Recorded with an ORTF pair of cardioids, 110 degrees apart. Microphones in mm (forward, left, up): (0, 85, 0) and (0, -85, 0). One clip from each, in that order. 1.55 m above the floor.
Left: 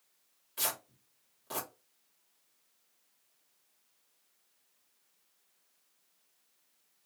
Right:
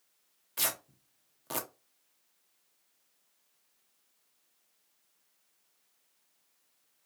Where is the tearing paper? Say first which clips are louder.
Right 2 dB; 40° right, 0.7 m.